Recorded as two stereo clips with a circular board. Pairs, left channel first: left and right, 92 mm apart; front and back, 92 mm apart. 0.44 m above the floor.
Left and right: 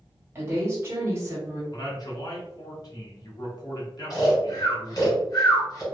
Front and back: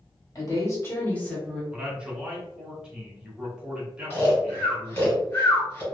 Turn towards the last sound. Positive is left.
turn(degrees=60)